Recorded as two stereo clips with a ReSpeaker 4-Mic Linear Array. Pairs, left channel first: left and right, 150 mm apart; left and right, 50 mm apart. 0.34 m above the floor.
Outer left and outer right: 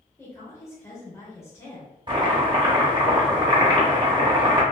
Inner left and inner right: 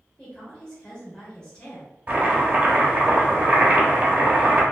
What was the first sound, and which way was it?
A woman speaking, 20° left (ahead or behind).